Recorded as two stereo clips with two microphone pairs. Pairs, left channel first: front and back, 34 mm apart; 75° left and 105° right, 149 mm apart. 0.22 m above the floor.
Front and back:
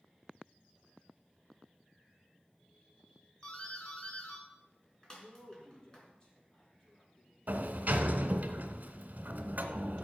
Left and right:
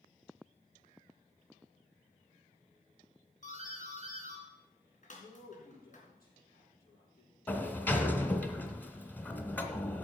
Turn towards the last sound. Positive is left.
turn(degrees=150)